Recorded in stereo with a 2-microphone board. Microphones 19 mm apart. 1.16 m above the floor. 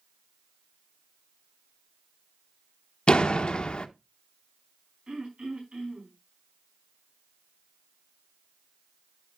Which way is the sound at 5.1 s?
85° right.